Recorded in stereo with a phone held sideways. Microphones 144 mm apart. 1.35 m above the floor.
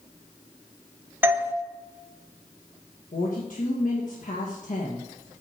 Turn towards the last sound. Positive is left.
turn(degrees=70)  # may be behind; listen again after turning